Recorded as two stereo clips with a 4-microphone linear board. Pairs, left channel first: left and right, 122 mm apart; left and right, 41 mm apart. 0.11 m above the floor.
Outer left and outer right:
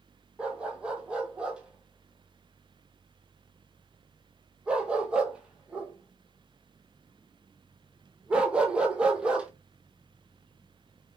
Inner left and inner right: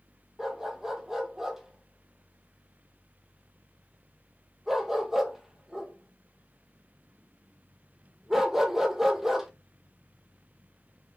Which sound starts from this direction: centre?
A dog barking, at 0.4 s.